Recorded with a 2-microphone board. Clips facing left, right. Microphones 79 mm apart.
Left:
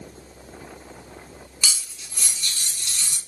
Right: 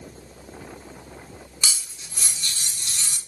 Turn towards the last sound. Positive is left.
turn(degrees=-35)  # may be behind; listen again after turning